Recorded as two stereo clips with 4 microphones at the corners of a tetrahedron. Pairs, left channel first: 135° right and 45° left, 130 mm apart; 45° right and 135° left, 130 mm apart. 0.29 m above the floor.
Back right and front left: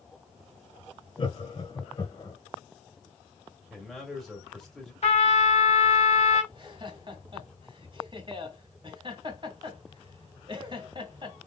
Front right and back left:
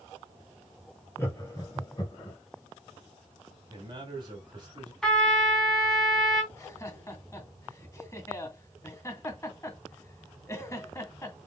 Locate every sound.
1.2 s laughter: 105° right, 1.6 m; by 2.4 s 85° right, 2 m
3.7 s a man speaking: 135° left, 1.9 m
5.0 s a trumpet: 130° right, 2.5 m
6.5 s laughter: 10° left, 1.9 m